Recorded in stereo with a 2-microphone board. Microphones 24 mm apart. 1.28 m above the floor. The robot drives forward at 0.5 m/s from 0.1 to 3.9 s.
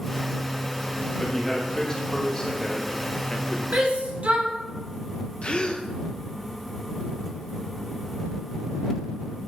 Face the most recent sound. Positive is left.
turn(degrees=40)  # may be behind; listen again after turning